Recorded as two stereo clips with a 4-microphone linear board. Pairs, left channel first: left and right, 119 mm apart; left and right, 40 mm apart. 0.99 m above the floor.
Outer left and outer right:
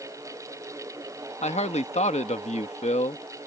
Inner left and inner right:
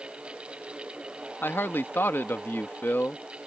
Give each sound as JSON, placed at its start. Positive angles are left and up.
{"t": 1.4, "sound": "a man speaking", "side_deg": 70}